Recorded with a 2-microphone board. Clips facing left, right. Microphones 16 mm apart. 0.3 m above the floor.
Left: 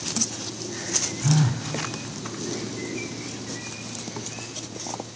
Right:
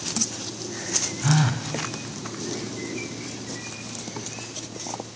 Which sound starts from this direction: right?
A phone buzzing, at 1.2 s.